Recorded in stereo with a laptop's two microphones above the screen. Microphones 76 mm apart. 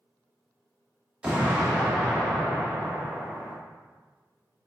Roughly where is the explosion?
Centre.